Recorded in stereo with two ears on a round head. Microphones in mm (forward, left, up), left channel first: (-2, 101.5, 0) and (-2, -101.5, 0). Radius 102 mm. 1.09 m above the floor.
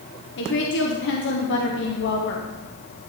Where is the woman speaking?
55° left (ahead or behind), 1.0 m.